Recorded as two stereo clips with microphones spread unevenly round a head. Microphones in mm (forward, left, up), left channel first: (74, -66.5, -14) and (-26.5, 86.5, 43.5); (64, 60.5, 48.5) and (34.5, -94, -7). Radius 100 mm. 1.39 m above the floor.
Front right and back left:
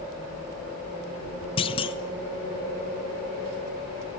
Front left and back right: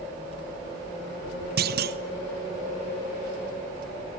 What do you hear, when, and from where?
1.6 s a clunk: 120° right, 1.1 m